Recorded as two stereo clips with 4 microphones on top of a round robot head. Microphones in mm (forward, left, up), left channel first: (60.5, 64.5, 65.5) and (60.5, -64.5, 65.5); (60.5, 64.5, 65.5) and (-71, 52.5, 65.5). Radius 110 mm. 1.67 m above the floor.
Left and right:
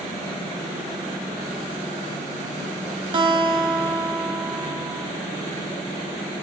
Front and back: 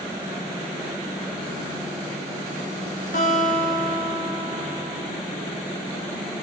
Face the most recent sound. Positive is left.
turn(degrees=-45)